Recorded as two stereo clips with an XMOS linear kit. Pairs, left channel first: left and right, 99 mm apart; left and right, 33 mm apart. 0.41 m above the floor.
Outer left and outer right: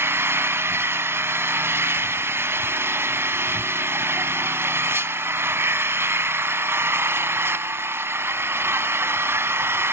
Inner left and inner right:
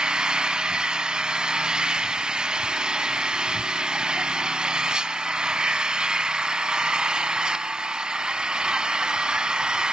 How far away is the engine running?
About 0.7 m.